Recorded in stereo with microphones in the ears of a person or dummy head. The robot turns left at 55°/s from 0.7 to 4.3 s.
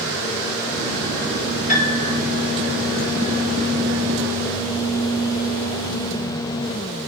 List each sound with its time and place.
1.7 s a piano: 50° left (ahead or behind), 4.5 m; by 2.2 s 25° left (ahead or behind), 4.5 m